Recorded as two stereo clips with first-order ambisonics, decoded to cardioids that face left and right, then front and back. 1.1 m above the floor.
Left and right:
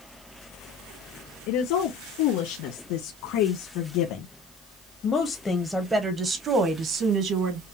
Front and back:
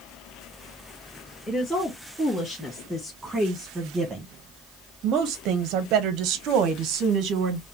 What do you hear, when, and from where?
1.5 s a woman speaking: 80° left, 2 m; by 7.6 s 135° right, 1.3 m